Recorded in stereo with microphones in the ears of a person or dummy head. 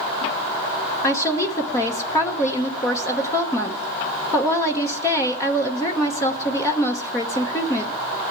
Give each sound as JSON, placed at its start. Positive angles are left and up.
{"t": 1.0, "sound": "a woman speaking", "side_deg": 20, "distance_m": 1.0}